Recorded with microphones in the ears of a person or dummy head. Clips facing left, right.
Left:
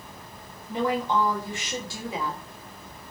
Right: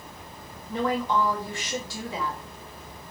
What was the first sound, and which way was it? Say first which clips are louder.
A woman speaking: even; 10° left (ahead or behind).